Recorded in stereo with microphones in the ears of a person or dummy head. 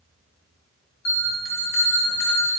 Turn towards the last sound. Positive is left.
turn(degrees=75)  # may be behind; listen again after turning